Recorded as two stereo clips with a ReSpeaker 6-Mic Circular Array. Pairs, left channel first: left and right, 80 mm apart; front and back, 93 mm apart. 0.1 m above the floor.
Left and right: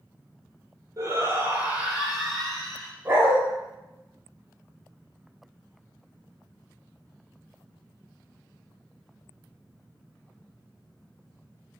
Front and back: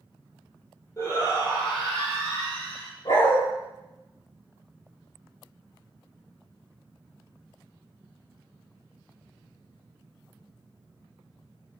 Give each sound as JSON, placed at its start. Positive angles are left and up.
{"t": 1.0, "sound": "a shout", "azimuth_deg": -45, "distance_m": 2.5}
{"t": 3.0, "sound": "a dog barking", "azimuth_deg": -25, "distance_m": 3.0}